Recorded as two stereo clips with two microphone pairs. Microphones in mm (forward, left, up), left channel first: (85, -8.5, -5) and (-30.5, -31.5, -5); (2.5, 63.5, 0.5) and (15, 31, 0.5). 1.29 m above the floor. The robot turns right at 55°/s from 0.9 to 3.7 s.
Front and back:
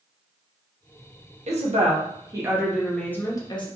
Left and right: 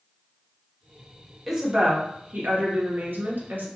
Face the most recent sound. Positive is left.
turn(degrees=-30)